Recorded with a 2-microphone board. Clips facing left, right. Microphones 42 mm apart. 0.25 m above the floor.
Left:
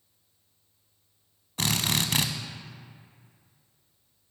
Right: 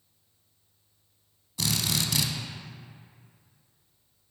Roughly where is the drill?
Left.